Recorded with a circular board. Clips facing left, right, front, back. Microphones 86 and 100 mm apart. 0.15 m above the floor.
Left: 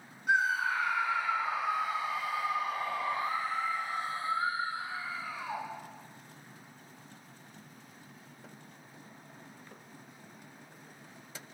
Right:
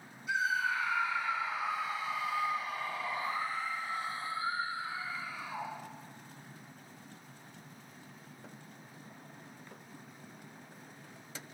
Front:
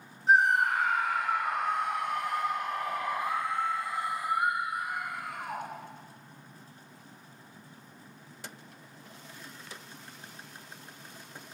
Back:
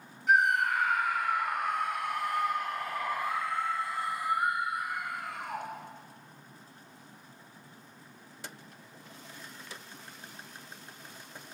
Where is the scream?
60° left, 7 m; by 5.7 s 80° left, 8.5 m.